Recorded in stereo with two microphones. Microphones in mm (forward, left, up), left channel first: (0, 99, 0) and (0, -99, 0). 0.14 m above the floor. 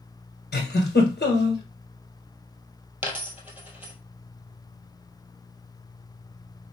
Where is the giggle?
60° left (ahead or behind), 1.6 m.